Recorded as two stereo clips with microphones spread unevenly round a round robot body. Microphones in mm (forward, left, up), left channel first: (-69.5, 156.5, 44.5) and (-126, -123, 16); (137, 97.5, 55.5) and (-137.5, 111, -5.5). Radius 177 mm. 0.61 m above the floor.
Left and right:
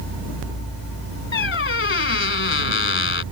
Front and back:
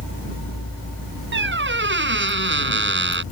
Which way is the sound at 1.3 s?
125° left.